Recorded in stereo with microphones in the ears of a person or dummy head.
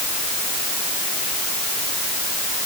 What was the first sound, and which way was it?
Only background noise.